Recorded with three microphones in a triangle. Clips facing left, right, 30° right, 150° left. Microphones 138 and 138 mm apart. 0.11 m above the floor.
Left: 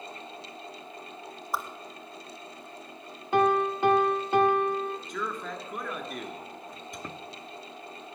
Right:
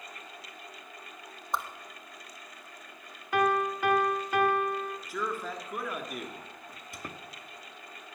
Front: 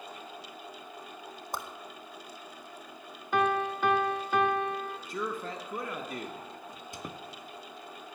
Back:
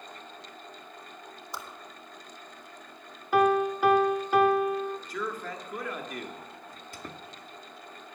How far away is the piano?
About 1.0 m.